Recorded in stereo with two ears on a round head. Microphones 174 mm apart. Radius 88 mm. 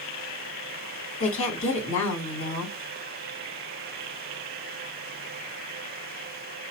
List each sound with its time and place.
1.2 s a woman speaking: 75° left (ahead or behind), 3.5 m